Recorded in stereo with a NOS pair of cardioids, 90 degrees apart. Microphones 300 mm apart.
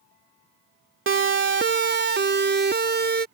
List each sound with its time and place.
1.1 s a siren: 40° right; by 3.2 s 35° right